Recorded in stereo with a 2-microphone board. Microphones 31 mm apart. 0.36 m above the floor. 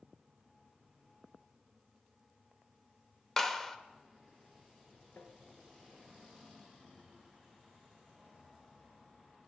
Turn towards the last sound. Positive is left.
turn(degrees=85)